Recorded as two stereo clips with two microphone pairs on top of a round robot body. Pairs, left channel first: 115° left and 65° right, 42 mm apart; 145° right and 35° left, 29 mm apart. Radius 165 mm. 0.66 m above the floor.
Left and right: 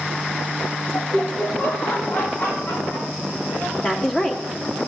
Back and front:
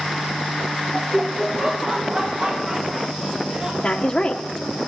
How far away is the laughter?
About 0.9 m.